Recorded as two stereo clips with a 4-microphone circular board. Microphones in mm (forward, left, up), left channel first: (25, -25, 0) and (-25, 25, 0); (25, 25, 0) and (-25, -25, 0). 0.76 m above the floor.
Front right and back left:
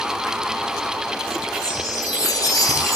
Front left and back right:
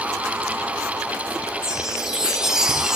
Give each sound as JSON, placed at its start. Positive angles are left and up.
{"t": 1.6, "sound": "a chime", "azimuth_deg": -55, "distance_m": 1.2}